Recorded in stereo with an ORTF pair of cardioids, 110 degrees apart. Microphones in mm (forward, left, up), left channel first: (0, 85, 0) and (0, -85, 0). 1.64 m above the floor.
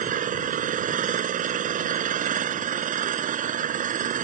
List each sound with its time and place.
0.0 s an engine running: 55° right